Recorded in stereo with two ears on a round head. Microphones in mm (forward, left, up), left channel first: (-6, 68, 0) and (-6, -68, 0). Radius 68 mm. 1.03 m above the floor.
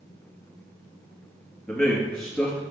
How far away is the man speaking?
About 2 m.